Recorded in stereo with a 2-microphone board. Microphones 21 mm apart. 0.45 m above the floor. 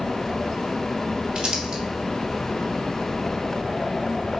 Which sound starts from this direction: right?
Crumpling, at 1.4 s.